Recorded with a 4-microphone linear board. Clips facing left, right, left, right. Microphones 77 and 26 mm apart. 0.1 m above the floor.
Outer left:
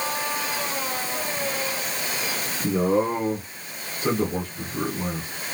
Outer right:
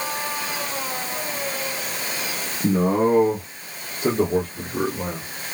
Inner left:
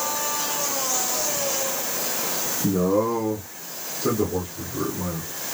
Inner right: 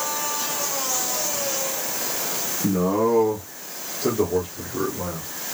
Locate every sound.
2.6 s a man speaking: 50° right (ahead or behind), 2 m; by 5.3 s 55° right (ahead or behind), 3.5 m